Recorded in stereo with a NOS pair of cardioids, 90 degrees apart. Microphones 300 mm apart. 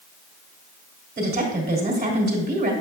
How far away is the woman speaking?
About 2.5 m.